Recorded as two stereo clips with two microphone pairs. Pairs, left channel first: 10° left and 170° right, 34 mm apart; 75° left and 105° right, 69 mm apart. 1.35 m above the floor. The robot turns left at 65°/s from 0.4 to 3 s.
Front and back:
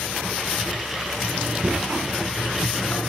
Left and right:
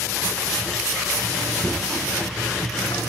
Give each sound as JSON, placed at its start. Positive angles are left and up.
{"t": 1.6, "sound": "knocking", "azimuth_deg": 155, "distance_m": 8.0}